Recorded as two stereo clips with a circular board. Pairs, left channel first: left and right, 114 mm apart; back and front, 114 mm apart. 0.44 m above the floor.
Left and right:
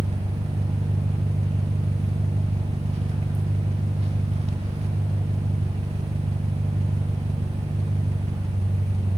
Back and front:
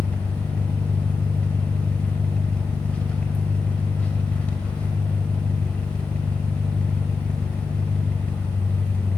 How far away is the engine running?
About 0.8 m.